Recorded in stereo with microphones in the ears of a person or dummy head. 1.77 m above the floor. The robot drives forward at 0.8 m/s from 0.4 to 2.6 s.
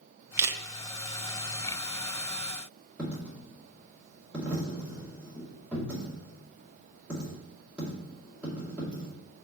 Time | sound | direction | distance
0.4 | a camera shutter | 10° right (ahead or behind) | 1.0 m
3.0 | a dropped coin | 5° left (ahead or behind) | 2 m